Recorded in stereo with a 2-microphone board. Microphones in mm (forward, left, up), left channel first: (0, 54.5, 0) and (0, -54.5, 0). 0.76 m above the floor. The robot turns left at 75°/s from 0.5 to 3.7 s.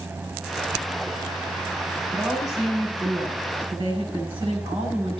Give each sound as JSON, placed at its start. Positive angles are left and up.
{"t": 2.1, "sound": "a woman speaking", "azimuth_deg": -5, "distance_m": 7.0}